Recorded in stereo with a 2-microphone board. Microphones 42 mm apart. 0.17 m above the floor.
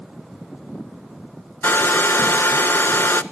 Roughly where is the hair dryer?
Left.